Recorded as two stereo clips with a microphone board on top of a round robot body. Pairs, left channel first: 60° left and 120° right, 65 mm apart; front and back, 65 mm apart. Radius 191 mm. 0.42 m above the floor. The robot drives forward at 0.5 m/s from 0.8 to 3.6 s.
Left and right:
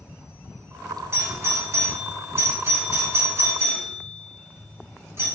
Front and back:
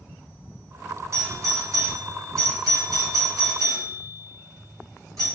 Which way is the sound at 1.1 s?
155° right.